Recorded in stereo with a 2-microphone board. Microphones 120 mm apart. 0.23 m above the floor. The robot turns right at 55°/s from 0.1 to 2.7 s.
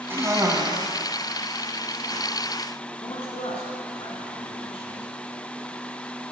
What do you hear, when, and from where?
0.1 s a cough: 15° right (ahead or behind), 1.6 m; by 2.2 s 25° right (ahead or behind), 1.6 m
3.0 s a man speaking: 50° left (ahead or behind), 3.5 m